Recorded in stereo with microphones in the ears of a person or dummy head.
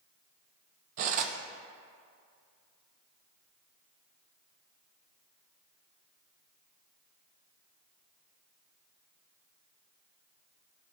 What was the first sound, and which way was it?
Cutlery clinking, 45° right (ahead or behind).